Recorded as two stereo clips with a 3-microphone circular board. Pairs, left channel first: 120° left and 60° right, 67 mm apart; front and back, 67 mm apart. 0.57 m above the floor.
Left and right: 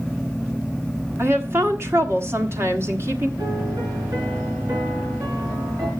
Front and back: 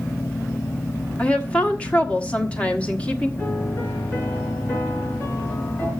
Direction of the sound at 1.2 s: 60° right.